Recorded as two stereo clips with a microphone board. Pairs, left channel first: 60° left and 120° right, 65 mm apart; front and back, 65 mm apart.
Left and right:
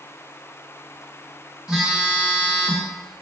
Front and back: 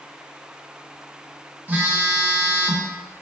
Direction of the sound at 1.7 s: 175° left.